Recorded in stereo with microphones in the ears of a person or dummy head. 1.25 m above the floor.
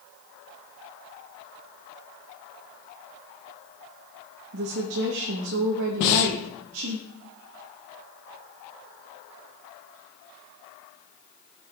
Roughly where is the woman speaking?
Right.